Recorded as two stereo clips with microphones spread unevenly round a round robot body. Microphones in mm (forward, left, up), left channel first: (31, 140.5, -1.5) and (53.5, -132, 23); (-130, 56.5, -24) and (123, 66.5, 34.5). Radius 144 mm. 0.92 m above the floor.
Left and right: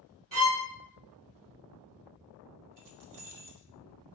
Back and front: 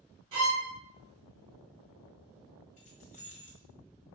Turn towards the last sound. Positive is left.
turn(degrees=-115)